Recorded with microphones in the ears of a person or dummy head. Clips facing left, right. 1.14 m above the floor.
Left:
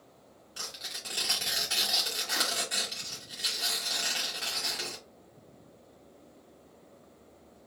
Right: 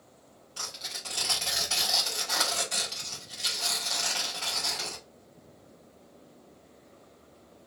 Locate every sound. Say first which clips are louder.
0.6 s tearing paper: right 2 dB; 20° left (ahead or behind), 2.0 m